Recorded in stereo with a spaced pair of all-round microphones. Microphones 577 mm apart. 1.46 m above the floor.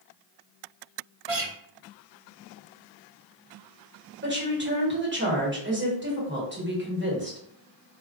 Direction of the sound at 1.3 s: 75° right (ahead or behind).